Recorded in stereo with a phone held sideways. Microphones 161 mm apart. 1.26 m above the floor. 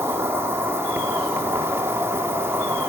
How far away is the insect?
About 0.8 m.